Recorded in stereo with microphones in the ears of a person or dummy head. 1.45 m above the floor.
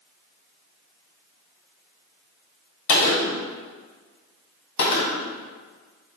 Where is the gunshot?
75° left (ahead or behind), 2.5 m.